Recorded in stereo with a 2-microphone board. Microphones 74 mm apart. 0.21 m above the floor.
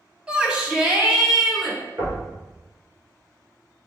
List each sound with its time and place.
0.3 s a shout: 15° right (ahead or behind), 1.0 m; by 1.8 s 10° right (ahead or behind), 1.5 m
2.0 s knocking: 40° right (ahead or behind), 2 m